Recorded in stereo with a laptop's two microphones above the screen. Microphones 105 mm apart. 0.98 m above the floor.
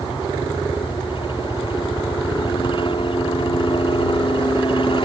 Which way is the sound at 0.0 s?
55° left (ahead or behind).